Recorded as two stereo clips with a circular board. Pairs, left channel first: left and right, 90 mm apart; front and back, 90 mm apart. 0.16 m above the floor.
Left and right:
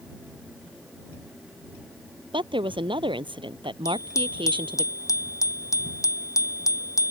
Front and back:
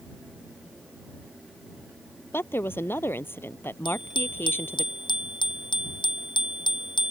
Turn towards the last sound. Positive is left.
turn(degrees=35)